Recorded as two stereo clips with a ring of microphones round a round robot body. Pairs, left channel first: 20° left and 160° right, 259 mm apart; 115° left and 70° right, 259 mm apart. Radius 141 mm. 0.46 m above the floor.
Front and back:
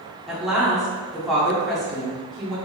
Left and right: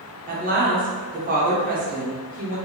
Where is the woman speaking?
65° right, 0.9 m.